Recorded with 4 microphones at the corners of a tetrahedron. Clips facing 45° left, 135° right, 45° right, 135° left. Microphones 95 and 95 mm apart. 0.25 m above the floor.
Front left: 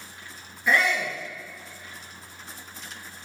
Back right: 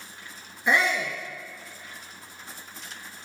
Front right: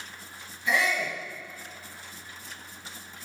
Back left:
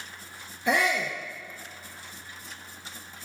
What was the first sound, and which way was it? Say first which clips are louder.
A shout: even, back left 2 dB; 160° left.